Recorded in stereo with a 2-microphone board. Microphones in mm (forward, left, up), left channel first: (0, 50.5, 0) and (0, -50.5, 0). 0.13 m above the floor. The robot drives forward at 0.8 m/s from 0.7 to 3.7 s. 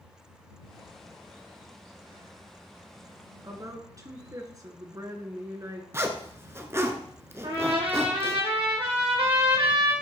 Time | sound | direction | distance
3.4 | a woman speaking | 35° right (ahead or behind) | 1.4 m
5.9 | a zipper | 25° right (ahead or behind) | 1.0 m
7.4 | a trumpet | 70° right (ahead or behind) | 3 m